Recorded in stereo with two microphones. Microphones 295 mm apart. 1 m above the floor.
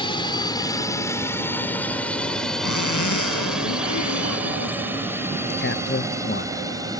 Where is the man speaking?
35° left (ahead or behind).